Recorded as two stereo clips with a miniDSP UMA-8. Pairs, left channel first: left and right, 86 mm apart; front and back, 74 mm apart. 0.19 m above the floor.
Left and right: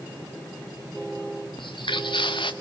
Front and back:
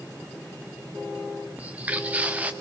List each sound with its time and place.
1.6 s footsteps: 110° left, 1.3 m